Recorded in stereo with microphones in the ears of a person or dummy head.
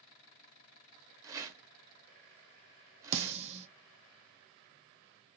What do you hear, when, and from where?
1.2 s a rattle: 20° right (ahead or behind), 0.7 m
3.1 s a snare drum: 35° right (ahead or behind), 0.9 m